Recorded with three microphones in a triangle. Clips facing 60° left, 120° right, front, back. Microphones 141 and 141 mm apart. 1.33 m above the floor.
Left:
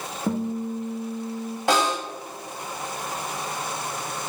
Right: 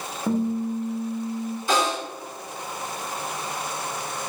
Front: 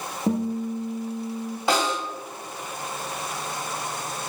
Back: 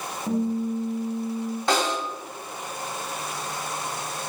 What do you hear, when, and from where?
0.3 s a guitar: 30° right, 0.8 m
1.7 s a snare drum: 80° left, 1.8 m